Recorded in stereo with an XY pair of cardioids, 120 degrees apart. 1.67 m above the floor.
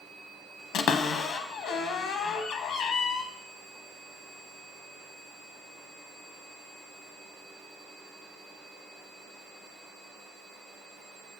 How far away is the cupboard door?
About 0.8 m.